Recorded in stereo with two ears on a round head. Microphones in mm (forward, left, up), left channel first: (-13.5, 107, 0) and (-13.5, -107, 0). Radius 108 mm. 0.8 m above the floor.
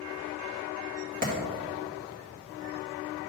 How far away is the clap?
About 1.6 m.